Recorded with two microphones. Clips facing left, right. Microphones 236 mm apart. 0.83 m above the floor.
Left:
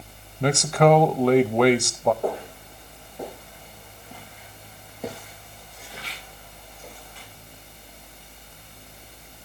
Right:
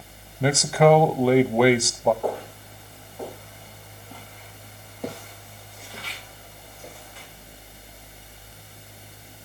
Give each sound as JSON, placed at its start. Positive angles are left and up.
{"t": 0.4, "sound": "a man speaking", "side_deg": -5, "distance_m": 0.8}
{"t": 2.2, "sound": "footsteps", "side_deg": 25, "distance_m": 6.0}